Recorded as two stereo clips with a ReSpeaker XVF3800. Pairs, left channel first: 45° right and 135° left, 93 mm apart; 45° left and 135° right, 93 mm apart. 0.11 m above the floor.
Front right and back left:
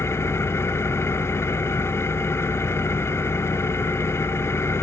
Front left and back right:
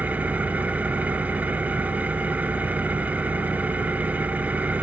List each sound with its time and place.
0.0 s an engine running: 75° right, 0.9 m